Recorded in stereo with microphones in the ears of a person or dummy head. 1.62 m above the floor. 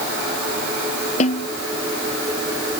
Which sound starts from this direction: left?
A snare drum, at 1.2 s.